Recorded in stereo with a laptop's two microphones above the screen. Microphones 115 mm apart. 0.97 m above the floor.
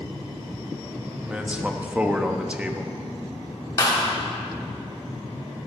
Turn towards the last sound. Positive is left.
turn(degrees=30)  # may be behind; listen again after turning